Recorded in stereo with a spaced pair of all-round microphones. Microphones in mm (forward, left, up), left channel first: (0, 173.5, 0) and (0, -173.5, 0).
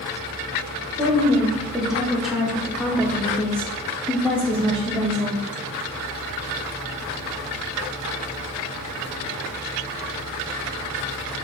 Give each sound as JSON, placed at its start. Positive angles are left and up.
{"t": 1.0, "sound": "a woman speaking", "side_deg": 0, "distance_m": 1.4}